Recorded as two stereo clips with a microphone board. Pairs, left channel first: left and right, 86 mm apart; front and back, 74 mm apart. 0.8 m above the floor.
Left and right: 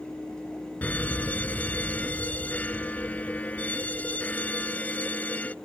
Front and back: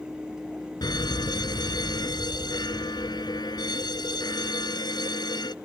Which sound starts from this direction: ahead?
A fire alarm, at 0.8 s.